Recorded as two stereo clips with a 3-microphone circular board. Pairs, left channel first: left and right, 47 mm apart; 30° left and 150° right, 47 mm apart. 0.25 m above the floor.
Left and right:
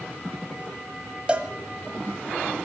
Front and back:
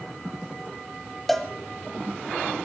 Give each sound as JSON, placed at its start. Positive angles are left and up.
{"t": 1.3, "sound": "a cowbell", "azimuth_deg": -55, "distance_m": 1.4}